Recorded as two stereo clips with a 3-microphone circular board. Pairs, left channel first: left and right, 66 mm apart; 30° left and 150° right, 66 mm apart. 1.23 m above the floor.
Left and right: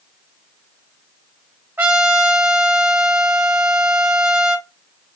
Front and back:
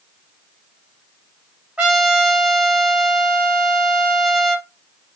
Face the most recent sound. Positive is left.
turn(degrees=-85)